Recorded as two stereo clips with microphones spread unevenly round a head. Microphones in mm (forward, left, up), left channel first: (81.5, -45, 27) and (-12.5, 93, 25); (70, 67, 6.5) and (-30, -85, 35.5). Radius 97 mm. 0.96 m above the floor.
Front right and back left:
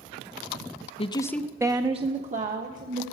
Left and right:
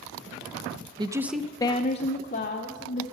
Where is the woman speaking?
65° right, 0.7 m; by 3.0 s 90° left, 1.8 m.